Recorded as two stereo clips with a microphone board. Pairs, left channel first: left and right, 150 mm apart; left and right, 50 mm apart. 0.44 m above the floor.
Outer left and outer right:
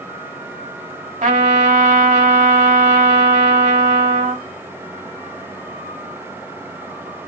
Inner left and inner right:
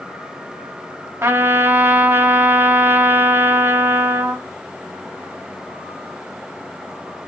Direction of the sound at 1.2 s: 60° right (ahead or behind).